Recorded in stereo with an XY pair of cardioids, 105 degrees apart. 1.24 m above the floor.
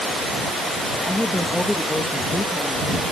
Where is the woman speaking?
10° left.